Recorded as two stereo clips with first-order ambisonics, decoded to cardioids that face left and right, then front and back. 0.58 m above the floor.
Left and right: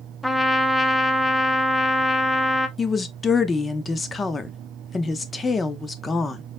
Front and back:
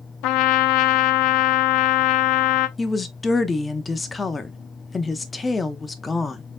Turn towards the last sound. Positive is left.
turn(degrees=55)